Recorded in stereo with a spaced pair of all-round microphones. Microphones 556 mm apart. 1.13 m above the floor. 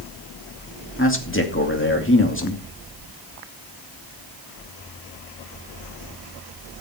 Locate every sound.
1.0 s a man speaking: 20° left (ahead or behind), 2.5 m